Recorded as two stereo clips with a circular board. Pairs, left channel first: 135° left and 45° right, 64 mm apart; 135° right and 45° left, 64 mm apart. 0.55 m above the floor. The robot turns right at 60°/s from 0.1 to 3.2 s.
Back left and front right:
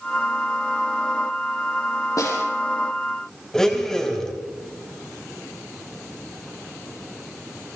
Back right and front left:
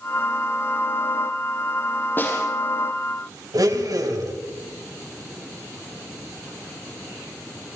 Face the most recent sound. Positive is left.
turn(degrees=55)